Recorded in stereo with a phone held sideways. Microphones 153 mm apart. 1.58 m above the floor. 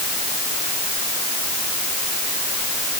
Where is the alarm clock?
I don't hear an alarm clock.